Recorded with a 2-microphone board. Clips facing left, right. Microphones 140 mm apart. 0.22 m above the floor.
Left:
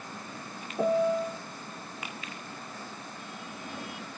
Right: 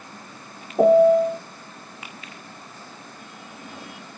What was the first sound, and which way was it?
A piano, 65° right (ahead or behind).